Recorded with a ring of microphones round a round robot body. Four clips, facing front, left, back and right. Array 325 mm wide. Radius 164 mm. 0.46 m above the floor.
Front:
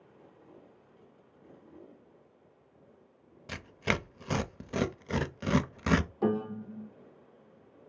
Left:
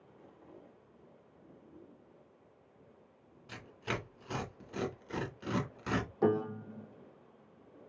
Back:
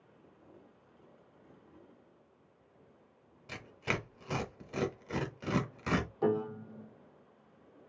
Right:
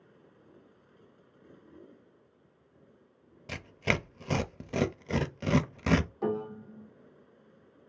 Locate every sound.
3.5 s tearing paper: 60° right, 0.7 m
6.2 s a piano: 55° left, 1.1 m